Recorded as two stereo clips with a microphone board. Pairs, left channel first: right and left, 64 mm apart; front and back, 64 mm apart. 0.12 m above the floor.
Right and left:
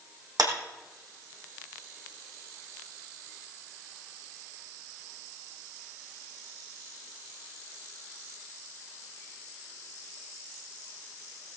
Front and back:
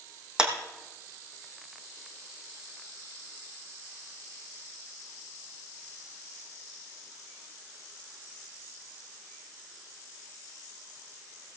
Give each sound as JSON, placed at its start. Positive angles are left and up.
{"t": 0.4, "sound": "a clap", "azimuth_deg": 105, "distance_m": 5.0}